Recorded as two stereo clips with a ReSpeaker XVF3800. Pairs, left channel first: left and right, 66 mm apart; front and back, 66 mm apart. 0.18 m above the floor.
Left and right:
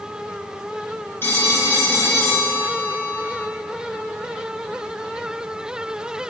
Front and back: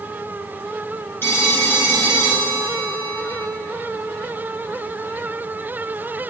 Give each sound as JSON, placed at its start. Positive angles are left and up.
{"t": 1.2, "sound": "a phone ringing", "azimuth_deg": 45, "distance_m": 1.7}